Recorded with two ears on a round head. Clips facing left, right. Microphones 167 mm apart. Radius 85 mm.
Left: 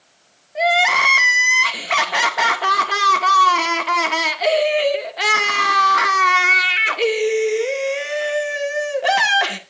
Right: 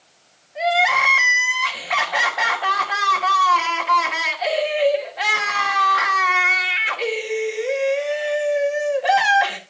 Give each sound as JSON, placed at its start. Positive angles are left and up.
{"t": 0.6, "sound": "crying", "side_deg": 55, "distance_m": 2.0}